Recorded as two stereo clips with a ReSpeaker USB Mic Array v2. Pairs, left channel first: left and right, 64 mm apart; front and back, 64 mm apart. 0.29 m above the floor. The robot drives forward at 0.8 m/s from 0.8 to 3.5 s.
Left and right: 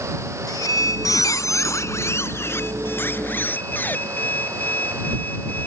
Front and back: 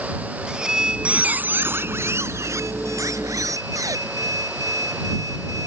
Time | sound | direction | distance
0.5 | a squeak | 105° left | ?